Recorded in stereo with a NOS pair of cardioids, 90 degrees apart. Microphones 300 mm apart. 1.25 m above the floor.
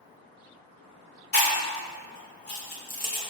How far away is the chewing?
About 2 m.